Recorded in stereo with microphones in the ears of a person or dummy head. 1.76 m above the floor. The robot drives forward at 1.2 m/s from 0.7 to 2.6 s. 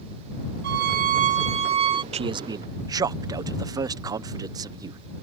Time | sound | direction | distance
0.6 | a violin | 60° right (ahead or behind) | ?
2.1 | a man speaking | 30° right (ahead or behind) | ?